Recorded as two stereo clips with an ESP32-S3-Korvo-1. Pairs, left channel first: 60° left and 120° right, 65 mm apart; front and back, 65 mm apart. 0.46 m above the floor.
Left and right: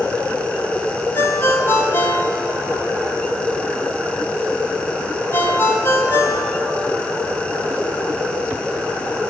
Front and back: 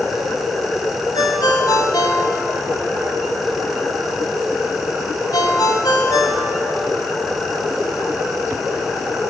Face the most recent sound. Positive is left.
turn(degrees=5)